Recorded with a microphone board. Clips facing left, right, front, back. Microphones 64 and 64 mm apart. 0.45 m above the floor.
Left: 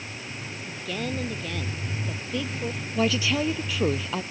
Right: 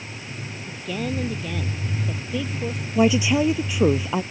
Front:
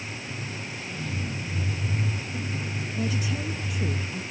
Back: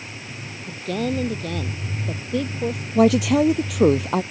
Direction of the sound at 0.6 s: 175° right.